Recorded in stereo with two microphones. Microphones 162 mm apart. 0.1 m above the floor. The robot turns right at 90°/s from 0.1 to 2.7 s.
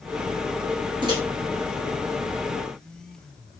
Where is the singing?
I don't hear singing.